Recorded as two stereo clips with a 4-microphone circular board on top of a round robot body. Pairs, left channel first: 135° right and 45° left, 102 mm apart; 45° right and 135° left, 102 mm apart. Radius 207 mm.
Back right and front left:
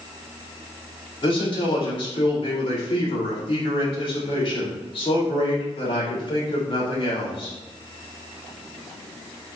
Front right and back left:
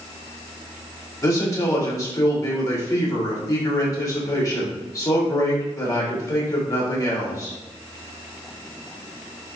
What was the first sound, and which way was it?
A man speaking, 100° right.